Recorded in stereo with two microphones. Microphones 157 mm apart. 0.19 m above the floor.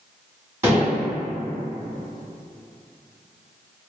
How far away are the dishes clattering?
About 1.0 m.